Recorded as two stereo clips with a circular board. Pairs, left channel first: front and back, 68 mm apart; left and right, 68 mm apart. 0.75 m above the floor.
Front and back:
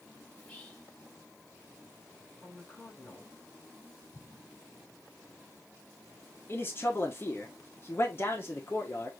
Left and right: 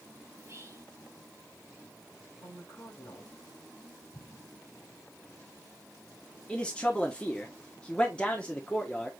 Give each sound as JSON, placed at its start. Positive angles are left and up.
{"t": 0.3, "sound": "whispering", "azimuth_deg": -70, "distance_m": 1.3}
{"t": 2.4, "sound": "a woman speaking", "azimuth_deg": 75, "distance_m": 3.5}
{"t": 4.1, "sound": "an explosion", "azimuth_deg": 55, "distance_m": 5.0}
{"t": 6.5, "sound": "a man speaking", "azimuth_deg": 25, "distance_m": 1.2}